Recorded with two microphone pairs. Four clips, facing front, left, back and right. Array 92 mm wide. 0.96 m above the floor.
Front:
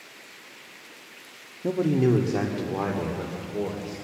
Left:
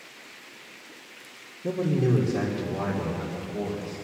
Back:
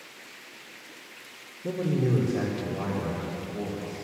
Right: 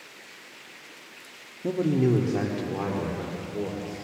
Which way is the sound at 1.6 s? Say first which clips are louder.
Right 2 dB, front 5 dB; 20° right.